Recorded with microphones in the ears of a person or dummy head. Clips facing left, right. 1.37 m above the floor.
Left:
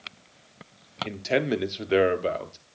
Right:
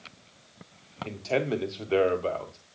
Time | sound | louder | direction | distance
1.0 | a man speaking | left 3 dB | 20° left (ahead or behind) | 0.6 m